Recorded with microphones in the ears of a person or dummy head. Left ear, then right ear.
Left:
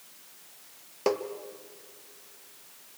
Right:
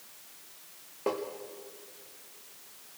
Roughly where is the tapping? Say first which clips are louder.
Left 4 dB; left.